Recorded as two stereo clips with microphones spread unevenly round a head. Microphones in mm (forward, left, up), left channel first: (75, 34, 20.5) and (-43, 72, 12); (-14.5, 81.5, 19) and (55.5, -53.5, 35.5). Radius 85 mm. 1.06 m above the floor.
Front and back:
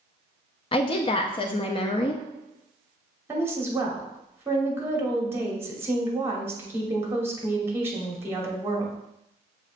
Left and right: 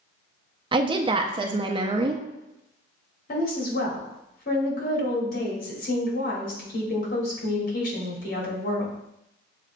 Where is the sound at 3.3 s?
90° left, 2.5 m.